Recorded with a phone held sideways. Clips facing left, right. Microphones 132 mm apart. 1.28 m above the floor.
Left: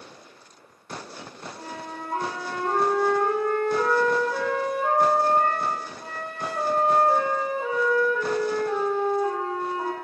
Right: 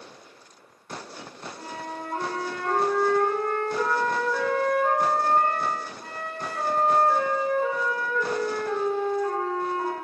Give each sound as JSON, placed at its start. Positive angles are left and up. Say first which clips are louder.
{"t": 1.6, "sound": "a flute", "louder": "right 1 dB", "side_deg": 20, "distance_m": 2.0}